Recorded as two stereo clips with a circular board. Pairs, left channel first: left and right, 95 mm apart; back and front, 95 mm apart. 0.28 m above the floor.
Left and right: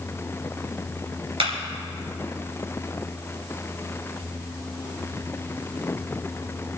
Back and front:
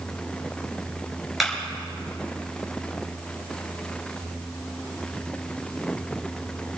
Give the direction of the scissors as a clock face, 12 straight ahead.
I don't hear scissors.